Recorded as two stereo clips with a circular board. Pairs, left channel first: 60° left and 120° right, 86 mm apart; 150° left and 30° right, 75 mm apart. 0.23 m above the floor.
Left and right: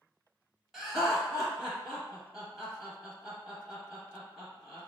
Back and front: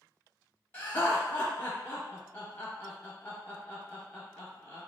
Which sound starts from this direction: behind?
Laughter, at 0.7 s.